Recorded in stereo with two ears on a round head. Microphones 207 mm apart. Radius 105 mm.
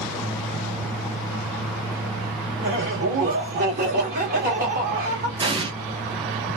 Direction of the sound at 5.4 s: 20° right (ahead or behind).